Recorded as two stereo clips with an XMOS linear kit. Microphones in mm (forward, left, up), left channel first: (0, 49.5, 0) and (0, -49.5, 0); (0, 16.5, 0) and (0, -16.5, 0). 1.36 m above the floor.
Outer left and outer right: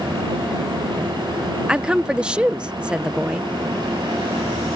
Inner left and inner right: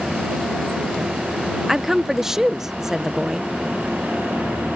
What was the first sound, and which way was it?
A woman speaking, 10° right (ahead or behind).